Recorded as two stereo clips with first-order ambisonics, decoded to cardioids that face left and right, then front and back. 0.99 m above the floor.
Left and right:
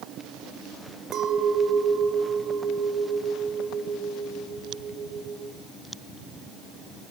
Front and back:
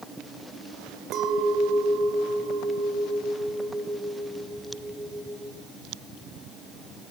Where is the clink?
140° right, 2.5 m.